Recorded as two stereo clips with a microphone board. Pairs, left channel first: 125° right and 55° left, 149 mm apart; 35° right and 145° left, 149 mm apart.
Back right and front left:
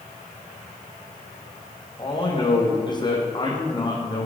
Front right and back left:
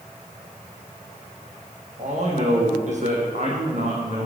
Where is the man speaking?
175° left, 4.5 m.